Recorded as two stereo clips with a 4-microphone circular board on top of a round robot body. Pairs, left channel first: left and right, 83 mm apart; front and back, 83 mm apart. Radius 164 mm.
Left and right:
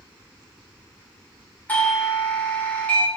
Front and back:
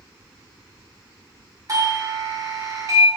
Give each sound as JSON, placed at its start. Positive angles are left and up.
{"t": 1.7, "sound": "a doorbell", "azimuth_deg": 155, "distance_m": 1.2}